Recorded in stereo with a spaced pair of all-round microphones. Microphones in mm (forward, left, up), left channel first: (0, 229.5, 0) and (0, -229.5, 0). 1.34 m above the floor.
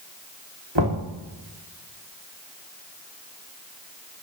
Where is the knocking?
65° right (ahead or behind), 3 m.